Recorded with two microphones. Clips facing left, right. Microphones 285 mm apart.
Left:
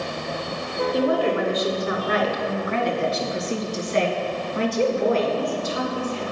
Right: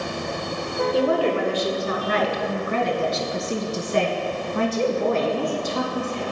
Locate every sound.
0.9 s a woman speaking: 30° right (ahead or behind), 3 m; by 6.2 s 60° right (ahead or behind), 2.5 m